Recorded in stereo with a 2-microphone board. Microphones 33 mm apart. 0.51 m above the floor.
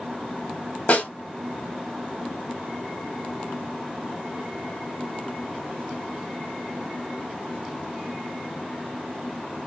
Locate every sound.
0.9 s a snare drum: 45° left (ahead or behind), 1.4 m